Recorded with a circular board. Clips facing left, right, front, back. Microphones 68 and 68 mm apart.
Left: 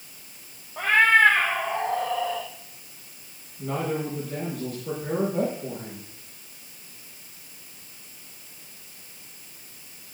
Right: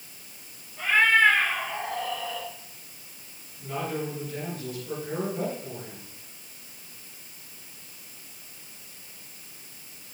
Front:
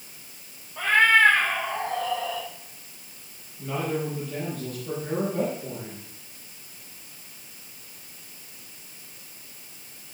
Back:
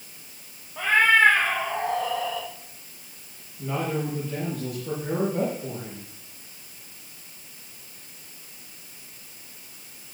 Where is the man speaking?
100° left, 8.5 m.